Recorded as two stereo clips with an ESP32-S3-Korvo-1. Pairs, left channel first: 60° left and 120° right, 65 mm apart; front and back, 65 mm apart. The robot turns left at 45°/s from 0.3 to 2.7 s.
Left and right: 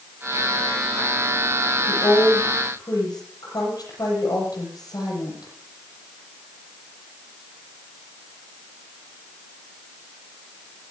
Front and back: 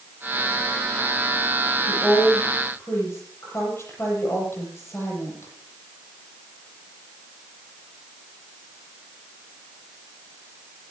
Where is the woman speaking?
90° left, 8 m; by 5.5 s 50° left, 8 m.